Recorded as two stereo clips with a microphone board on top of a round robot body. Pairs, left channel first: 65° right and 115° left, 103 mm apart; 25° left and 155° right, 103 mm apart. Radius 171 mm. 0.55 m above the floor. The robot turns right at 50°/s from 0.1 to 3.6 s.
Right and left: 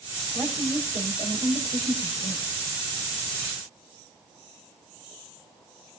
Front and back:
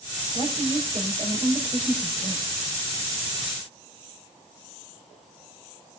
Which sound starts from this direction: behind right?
A woman speaking, at 0.3 s.